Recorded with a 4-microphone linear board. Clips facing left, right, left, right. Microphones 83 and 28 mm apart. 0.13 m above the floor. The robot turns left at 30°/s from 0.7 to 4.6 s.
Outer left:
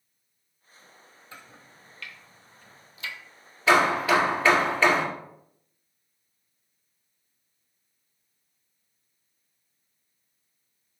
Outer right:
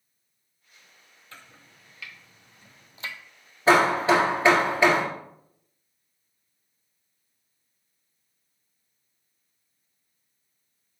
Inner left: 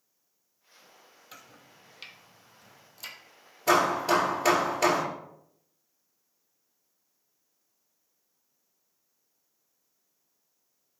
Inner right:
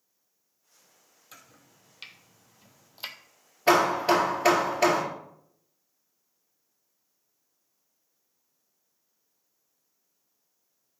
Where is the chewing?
I don't hear chewing.